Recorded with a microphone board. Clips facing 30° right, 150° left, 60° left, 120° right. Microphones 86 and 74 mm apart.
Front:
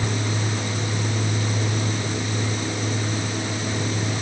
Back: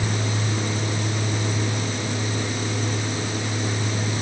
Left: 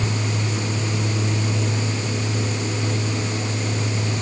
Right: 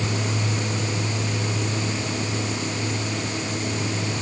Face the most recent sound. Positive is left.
No sound to turn to.